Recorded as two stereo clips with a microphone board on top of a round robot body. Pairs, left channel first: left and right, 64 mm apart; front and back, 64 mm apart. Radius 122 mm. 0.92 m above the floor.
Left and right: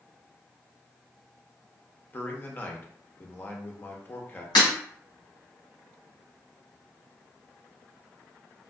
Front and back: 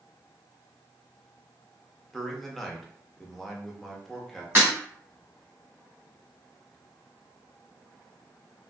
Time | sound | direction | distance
2.1 | a man speaking | 80° left | 0.9 m
4.5 | breaking glass | 115° left | 1.0 m